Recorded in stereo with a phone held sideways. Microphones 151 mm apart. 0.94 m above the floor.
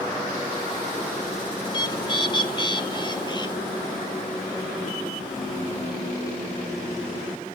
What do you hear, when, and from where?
1.6 s a bird: 30° left (ahead or behind), 1.1 m